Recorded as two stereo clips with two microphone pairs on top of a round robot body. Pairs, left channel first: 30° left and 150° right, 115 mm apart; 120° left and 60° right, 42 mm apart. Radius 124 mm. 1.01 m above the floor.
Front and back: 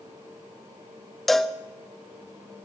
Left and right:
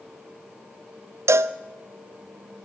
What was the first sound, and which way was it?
A cowbell, 60° right.